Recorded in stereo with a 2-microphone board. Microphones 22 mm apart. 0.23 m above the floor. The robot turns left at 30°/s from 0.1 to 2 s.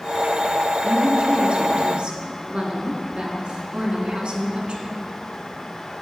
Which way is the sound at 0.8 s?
85° right.